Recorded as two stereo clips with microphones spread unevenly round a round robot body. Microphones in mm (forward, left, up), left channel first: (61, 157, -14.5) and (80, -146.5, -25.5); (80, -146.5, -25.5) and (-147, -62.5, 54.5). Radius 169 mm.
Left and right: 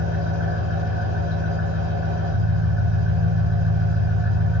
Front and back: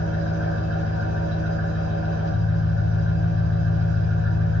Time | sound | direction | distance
0.0 | an engine running | 50° right | 1.3 m